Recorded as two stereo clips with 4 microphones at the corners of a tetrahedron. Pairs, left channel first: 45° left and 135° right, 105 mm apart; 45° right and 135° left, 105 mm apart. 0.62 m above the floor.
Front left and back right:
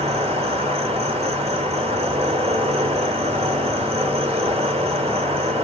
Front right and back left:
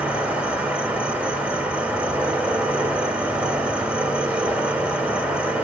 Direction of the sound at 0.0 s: 150° right.